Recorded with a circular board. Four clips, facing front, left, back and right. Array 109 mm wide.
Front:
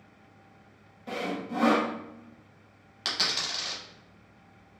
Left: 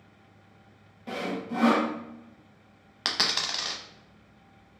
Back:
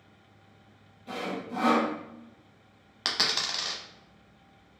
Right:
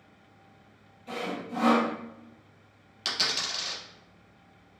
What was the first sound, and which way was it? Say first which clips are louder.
Sawing: left 2 dB, front 2 dB; 60° left.